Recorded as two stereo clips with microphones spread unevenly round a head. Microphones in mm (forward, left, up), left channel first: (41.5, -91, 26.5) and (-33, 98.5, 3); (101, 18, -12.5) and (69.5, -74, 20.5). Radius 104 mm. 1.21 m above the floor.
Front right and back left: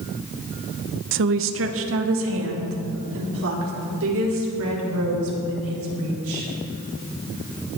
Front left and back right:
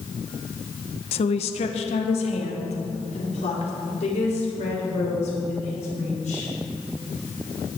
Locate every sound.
1.1 s a woman speaking: 85° left, 0.7 m; by 6.5 s 90° left, 6.5 m